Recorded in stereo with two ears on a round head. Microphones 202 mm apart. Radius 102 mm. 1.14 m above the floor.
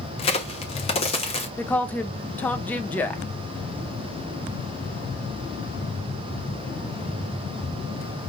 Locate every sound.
0.2 s a crack: 25° left (ahead or behind), 1.0 m
1.6 s a woman speaking: 10° left (ahead or behind), 0.8 m